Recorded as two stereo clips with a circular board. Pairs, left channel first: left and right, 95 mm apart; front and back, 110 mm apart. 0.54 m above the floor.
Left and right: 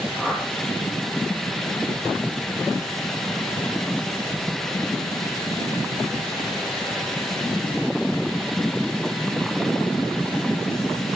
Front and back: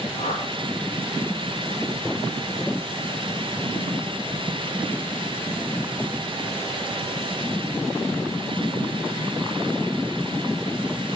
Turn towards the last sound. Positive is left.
turn(degrees=5)